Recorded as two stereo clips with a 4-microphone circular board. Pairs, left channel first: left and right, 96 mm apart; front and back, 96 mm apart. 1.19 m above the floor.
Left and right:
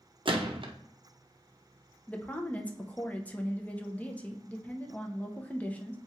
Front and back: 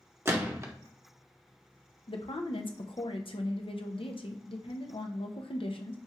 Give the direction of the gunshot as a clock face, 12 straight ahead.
4 o'clock.